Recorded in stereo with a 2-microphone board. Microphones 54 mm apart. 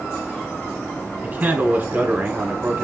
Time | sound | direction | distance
1.2 | a man speaking | 30° right (ahead or behind) | 1.7 m